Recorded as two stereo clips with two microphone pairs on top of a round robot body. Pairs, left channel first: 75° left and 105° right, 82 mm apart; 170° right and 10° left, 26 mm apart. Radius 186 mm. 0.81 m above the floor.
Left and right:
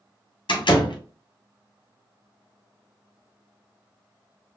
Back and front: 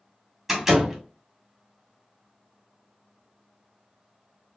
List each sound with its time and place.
0.5 s a door slam: 90° left, 1.4 m